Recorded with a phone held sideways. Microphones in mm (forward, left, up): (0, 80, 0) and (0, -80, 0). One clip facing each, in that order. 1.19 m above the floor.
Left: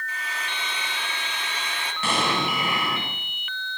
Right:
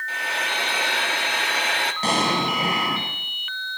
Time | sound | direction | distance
0.1 | frying | 70° right (ahead or behind) | 1.4 m
2.0 | an explosion | 40° right (ahead or behind) | 8 m